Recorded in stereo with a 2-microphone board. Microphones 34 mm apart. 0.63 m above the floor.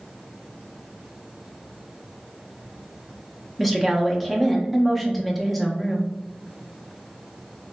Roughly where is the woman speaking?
Centre.